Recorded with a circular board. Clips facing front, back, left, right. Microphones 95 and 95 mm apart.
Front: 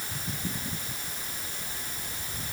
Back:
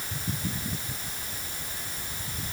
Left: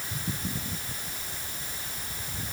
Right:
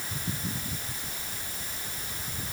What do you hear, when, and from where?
Only background noise.